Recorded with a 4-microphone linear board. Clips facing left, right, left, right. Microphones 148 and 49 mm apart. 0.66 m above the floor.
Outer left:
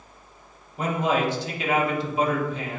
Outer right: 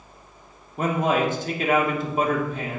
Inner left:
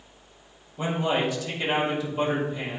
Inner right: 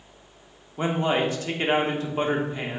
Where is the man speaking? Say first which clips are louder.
Outer right 2 dB, inner right 2 dB; 45° right (ahead or behind), 1.4 m.